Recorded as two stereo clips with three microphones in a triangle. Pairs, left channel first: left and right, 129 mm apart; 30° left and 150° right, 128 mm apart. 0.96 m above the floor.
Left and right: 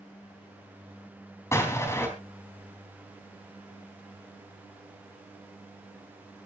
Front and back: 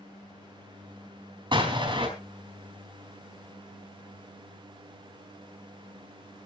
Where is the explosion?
160° left, 4 m.